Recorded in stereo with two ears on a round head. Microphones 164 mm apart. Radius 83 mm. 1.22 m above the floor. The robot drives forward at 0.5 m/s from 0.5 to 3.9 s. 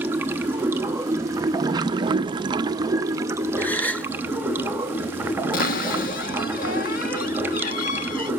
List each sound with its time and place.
0.0 s running water: 10° right (ahead or behind), 1.0 m
3.6 s a gasp: 10° left (ahead or behind), 0.8 m
5.5 s a cupboard door: 50° left (ahead or behind), 1.3 m